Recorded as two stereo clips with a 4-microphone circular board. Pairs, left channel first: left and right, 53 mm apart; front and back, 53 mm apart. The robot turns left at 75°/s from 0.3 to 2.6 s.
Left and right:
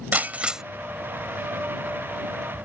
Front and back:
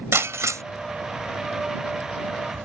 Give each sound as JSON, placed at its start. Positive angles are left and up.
{"t": 0.1, "sound": "breaking glass", "azimuth_deg": -150}